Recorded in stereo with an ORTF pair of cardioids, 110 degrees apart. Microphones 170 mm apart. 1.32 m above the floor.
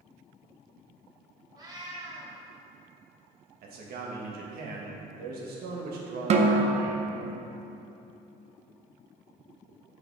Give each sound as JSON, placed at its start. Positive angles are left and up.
{"t": 1.6, "sound": "a cat meowing", "azimuth_deg": -25, "distance_m": 1.8}
{"t": 3.6, "sound": "a man speaking", "azimuth_deg": -65, "distance_m": 1.7}
{"t": 6.3, "sound": "a snare drum", "azimuth_deg": -45, "distance_m": 0.7}